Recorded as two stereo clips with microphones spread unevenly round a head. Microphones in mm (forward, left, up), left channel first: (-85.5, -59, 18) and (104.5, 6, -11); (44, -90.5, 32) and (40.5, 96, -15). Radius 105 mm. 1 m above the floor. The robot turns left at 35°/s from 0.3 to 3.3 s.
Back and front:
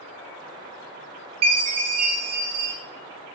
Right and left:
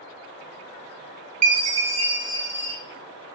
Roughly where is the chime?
Left.